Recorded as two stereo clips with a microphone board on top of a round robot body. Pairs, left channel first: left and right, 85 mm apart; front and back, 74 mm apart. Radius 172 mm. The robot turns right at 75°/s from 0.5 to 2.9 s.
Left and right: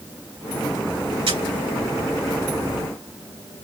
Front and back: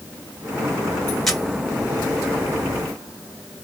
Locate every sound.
1.3 s a camera shutter: 85° right, 2.5 m; by 1.4 s 75° right, 2.5 m